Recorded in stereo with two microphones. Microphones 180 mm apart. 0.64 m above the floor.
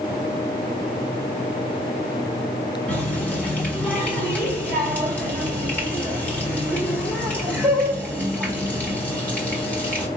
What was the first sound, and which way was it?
A running tap, 10° left (ahead or behind).